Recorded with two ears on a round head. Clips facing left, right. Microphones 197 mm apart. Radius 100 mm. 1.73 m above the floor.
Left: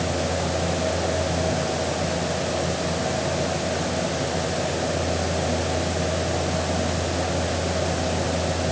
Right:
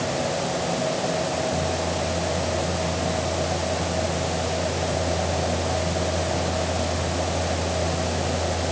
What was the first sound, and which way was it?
Only background noise.